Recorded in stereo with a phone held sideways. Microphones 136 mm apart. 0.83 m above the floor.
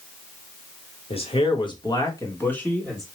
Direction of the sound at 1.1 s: 45° left (ahead or behind).